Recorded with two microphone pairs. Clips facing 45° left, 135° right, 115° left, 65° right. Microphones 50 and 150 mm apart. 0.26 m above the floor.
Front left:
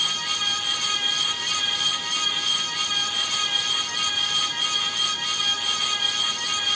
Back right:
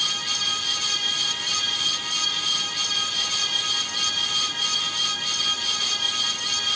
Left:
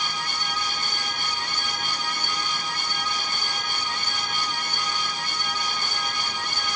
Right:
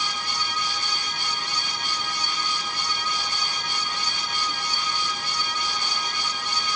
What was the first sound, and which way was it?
Only background noise.